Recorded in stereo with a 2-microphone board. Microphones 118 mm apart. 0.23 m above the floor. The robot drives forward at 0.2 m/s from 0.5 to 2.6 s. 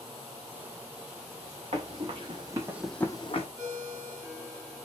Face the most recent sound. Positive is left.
turn(degrees=-25)  # may be behind; listen again after turning